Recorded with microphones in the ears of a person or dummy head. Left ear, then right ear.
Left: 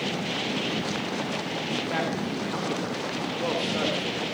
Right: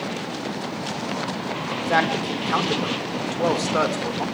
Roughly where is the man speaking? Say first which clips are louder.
Right 10 dB; right.